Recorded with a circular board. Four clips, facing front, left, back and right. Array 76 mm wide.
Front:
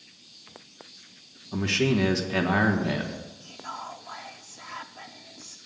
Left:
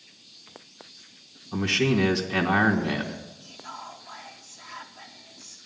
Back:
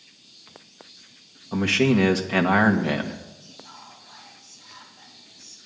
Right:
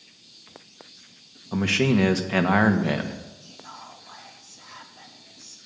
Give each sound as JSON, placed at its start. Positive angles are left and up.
{"t": 1.5, "sound": "a man speaking", "azimuth_deg": -140, "distance_m": 1.4}
{"t": 3.4, "sound": "whispering", "azimuth_deg": 5, "distance_m": 0.6}